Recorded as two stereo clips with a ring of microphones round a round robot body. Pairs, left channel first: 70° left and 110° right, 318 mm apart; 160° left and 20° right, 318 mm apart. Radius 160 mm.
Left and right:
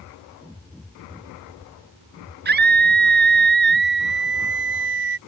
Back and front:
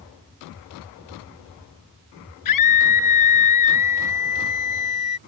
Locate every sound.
2.5 s a scream: 175° right; by 5.2 s 165° right